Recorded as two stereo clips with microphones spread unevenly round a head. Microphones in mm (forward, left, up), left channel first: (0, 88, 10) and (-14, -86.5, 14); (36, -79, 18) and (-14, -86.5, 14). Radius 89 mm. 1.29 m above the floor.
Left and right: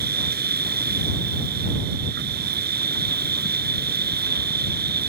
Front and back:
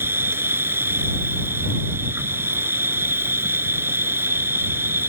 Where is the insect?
130° right.